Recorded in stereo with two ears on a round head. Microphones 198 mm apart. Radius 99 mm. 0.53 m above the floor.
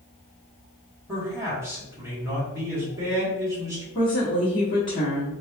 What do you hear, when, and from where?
1.1 s a man speaking: 15° right (ahead or behind), 1.3 m
4.0 s a woman speaking: 25° left (ahead or behind), 1.2 m